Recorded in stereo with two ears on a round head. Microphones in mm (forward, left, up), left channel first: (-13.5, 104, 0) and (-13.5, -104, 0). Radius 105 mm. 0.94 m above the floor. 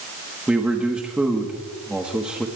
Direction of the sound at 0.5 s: 5° right (ahead or behind).